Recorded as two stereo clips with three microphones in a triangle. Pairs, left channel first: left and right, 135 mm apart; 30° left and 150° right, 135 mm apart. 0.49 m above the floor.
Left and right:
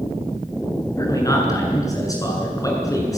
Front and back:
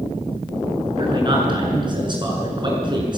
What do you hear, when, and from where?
1.0 s a man speaking: 155° left, 7 m